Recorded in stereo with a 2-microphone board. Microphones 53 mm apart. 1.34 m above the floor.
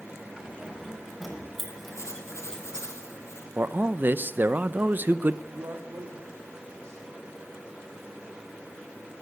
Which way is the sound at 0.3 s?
10° right (ahead or behind).